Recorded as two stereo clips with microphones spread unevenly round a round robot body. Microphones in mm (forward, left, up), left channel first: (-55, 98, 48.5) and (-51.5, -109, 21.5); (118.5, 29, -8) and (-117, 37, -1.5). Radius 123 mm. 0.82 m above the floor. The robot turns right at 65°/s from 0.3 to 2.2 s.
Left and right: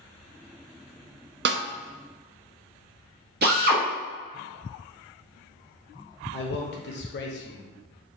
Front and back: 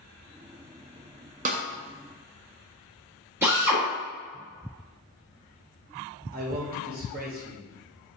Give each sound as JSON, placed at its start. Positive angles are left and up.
{"t": 1.4, "sound": "a snare drum", "azimuth_deg": -120, "distance_m": 0.6}
{"t": 3.4, "sound": "a drill", "azimuth_deg": -100, "distance_m": 1.5}
{"t": 6.3, "sound": "a man speaking", "azimuth_deg": 125, "distance_m": 0.9}